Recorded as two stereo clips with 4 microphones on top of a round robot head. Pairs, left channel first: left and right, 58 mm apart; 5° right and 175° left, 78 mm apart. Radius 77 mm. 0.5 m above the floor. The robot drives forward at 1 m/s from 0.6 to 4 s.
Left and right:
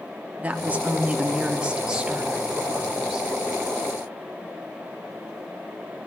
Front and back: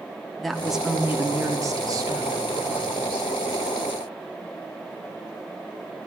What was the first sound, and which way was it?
A woman speaking, 85° right.